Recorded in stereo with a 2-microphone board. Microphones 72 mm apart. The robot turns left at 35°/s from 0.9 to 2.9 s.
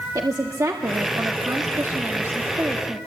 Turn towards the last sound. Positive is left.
turn(degrees=-155)